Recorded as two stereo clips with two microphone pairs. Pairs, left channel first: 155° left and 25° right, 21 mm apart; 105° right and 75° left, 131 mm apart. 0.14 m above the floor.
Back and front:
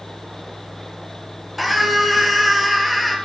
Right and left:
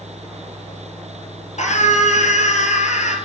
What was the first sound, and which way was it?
A scream, 115° right.